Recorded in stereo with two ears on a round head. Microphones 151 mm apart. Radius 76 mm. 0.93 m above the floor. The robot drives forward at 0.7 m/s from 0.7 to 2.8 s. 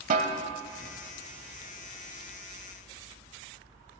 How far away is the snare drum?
About 1.0 m.